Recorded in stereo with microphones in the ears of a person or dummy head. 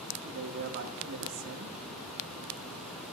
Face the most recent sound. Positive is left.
turn(degrees=-65)  # may be behind; listen again after turning